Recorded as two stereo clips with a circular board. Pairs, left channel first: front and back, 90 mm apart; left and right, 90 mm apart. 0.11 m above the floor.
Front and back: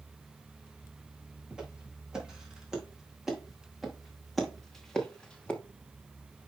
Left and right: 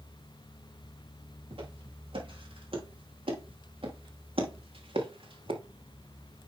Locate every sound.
1.5 s footsteps: 100° right, 5 m; by 5.6 s 75° right, 2 m